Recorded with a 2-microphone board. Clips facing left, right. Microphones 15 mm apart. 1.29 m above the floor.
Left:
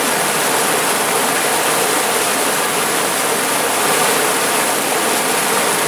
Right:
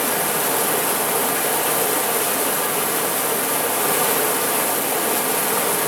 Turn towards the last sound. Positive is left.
turn(degrees=25)  # may be behind; listen again after turning